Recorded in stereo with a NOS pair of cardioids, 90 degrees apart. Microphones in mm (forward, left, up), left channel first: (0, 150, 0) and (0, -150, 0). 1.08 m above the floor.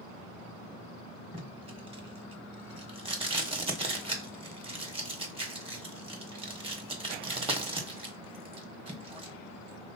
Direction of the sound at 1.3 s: 20° right.